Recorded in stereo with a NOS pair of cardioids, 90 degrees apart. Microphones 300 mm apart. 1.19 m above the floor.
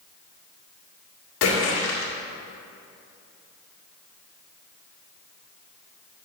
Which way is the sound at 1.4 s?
60° left.